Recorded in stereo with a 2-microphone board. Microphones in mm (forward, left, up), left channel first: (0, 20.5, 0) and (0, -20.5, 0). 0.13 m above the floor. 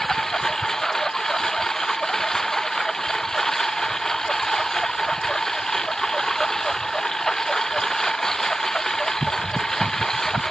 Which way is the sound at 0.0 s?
10° left (ahead or behind).